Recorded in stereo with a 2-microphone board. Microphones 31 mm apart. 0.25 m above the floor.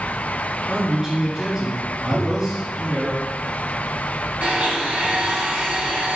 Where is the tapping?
20° left (ahead or behind), 2.5 m.